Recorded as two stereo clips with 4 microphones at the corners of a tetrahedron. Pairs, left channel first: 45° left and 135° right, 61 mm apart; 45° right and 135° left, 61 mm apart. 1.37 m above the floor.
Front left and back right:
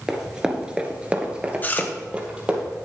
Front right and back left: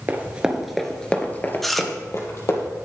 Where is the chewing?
40° left, 0.9 m.